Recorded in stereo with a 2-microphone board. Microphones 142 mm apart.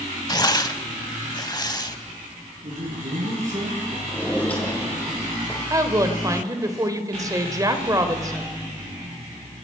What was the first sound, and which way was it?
Tearing paper, 30° left (ahead or behind).